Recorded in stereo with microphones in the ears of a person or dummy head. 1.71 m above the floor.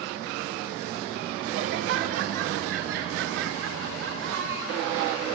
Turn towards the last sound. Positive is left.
turn(degrees=-85)